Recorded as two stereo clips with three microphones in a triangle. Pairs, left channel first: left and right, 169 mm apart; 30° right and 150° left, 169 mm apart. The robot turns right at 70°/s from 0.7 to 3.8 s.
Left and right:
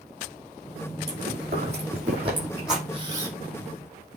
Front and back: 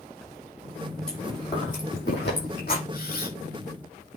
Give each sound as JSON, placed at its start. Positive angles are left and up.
{"t": 1.1, "sound": "chewing", "azimuth_deg": -115, "distance_m": 6.0}
{"t": 2.9, "sound": "a camera shutter", "azimuth_deg": -40, "distance_m": 1.7}